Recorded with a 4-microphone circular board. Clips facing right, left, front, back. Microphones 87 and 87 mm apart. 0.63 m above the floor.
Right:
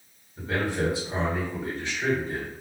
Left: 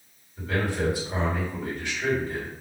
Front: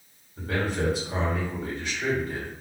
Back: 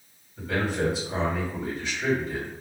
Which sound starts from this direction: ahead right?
A man speaking, at 0.4 s.